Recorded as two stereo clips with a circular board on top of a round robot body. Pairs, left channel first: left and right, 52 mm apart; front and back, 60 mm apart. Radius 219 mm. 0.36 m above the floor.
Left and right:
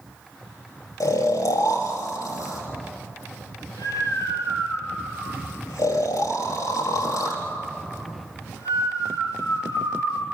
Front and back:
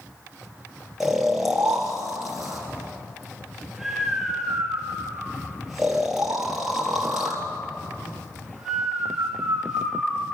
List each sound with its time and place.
1.0 s snoring: 95° left, 1.8 m